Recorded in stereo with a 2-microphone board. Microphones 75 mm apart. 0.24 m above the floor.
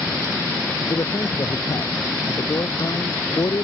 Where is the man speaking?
60° left (ahead or behind).